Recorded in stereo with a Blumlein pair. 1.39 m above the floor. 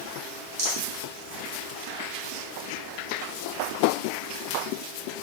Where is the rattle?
55° right, 1.2 m.